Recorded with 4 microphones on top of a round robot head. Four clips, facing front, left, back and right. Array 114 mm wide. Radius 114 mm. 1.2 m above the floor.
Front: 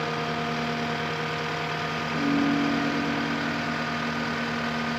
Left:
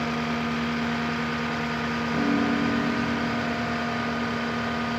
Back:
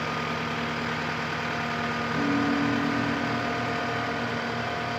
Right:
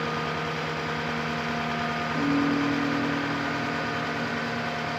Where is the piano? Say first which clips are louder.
Even, front 2 dB; 110° left, 5 m.